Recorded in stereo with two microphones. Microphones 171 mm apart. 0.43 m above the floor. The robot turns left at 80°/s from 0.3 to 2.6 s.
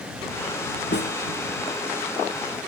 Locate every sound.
0.9 s a snare drum: 80° left